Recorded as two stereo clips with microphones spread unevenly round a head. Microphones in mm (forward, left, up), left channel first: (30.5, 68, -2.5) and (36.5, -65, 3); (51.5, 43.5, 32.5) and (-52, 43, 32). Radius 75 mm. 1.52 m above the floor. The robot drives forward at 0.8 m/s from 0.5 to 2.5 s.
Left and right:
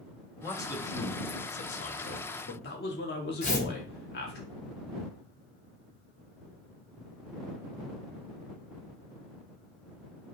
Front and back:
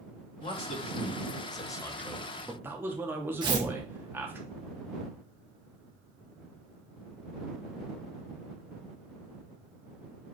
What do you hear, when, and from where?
0.4 s a man speaking: 25° left, 1.5 m; by 4.4 s 110° left, 0.7 m
3.4 s tearing paper: 135° left, 1.0 m